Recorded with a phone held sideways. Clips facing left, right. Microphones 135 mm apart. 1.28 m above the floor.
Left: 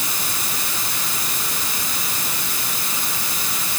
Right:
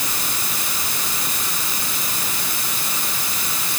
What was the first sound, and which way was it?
Only background noise.